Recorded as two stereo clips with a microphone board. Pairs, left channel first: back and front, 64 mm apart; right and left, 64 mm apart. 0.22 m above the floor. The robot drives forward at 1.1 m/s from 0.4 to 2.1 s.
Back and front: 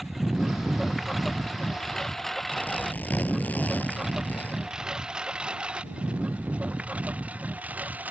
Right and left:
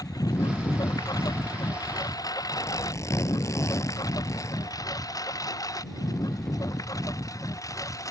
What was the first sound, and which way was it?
A lawn mower, 90° right.